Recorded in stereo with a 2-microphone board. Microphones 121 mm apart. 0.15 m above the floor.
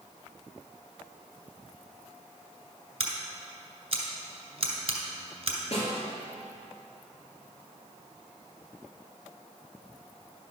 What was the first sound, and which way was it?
Scissors, 45° right (ahead or behind).